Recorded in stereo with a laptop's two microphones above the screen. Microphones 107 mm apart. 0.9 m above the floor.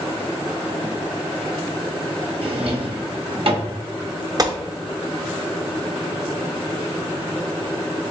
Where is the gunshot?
35° right (ahead or behind), 0.6 m.